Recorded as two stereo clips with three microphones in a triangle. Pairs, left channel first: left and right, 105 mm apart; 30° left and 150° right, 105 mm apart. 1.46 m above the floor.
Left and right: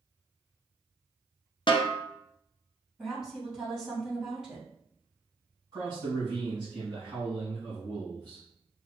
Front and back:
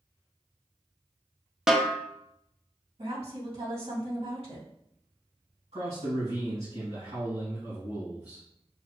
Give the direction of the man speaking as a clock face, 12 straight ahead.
5 o'clock.